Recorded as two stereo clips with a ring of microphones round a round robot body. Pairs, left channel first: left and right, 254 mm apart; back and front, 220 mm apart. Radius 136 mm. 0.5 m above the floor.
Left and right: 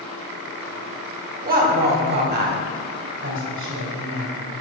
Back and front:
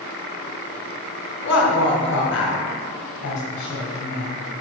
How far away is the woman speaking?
About 2 m.